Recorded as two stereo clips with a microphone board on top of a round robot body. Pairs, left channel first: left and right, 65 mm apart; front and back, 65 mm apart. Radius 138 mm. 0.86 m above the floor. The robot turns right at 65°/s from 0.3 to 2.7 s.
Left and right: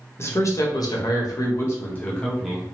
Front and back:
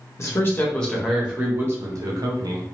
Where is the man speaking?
45° left, 0.9 m; by 2.6 s 165° right, 0.9 m.